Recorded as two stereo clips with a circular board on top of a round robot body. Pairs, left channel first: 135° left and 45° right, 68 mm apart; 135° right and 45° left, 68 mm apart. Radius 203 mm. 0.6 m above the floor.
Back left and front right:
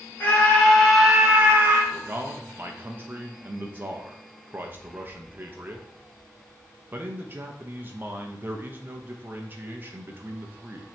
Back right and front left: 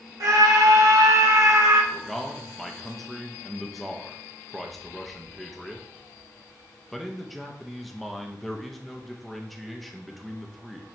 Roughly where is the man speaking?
Ahead right.